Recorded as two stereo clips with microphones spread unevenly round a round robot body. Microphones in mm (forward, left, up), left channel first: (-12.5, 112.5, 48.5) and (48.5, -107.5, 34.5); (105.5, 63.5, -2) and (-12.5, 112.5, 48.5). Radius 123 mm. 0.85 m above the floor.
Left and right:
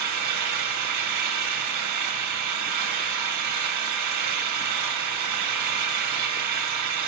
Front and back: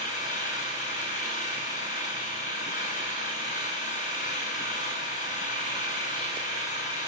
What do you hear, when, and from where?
0.0 s an engine running: 75° right, 3 m